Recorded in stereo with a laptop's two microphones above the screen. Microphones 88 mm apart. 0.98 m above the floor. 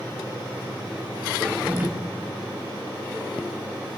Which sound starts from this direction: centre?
A drawer, at 1.4 s.